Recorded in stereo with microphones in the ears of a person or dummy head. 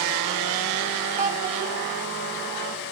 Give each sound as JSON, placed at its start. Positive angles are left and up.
{"t": 1.2, "sound": "a child speaking", "side_deg": -40, "distance_m": 4.0}